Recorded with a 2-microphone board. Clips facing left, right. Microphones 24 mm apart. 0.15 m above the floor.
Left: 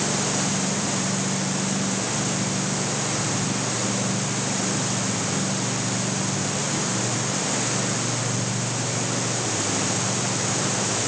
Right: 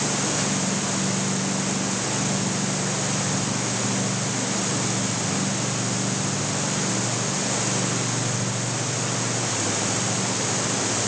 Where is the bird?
I don't hear a bird.